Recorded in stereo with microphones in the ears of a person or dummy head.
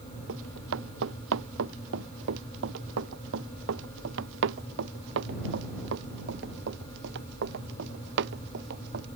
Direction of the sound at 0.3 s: 70° right (ahead or behind).